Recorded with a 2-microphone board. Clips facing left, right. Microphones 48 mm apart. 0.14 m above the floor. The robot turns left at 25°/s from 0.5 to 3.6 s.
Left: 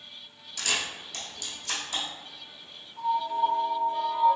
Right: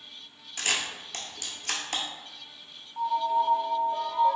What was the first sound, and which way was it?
A camera shutter, 35° right (ahead or behind).